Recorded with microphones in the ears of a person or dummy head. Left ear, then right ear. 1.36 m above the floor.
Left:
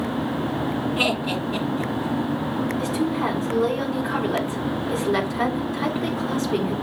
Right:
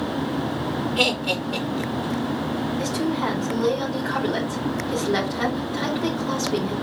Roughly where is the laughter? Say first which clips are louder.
Right 2 dB; right.